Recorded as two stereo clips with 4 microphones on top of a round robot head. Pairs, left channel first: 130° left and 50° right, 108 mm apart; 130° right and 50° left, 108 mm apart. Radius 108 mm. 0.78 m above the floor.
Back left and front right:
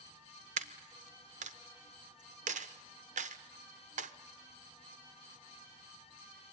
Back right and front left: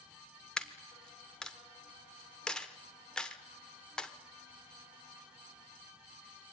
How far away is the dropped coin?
About 1.0 m.